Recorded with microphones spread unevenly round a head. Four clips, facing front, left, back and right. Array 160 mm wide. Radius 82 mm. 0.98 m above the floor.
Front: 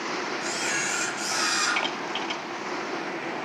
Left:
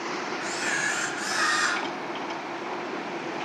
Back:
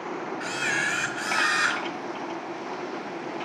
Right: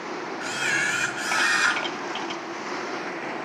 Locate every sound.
0.4 s a camera shutter: 105° right, 1.4 m